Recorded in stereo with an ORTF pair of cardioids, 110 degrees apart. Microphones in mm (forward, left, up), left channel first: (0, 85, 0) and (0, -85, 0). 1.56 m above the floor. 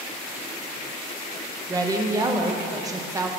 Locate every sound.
1.7 s a woman speaking: 20° right, 0.8 m